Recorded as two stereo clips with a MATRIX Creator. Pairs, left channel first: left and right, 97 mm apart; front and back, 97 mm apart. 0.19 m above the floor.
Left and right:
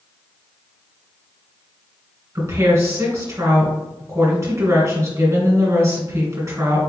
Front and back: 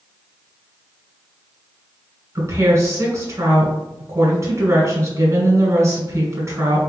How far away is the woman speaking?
About 1.6 m.